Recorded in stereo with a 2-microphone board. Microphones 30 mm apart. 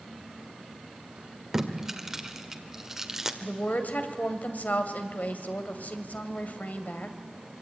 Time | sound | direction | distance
1.5 | tape being pulled | 15° right (ahead or behind) | 1.8 m
3.4 | a woman speaking | 60° left (ahead or behind) | 2.5 m